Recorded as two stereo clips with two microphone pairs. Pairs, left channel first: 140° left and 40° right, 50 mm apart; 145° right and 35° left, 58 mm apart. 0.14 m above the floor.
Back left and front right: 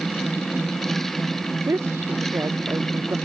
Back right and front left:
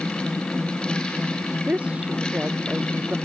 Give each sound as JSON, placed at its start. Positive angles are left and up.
{"t": 1.7, "sound": "a woman speaking", "azimuth_deg": -30}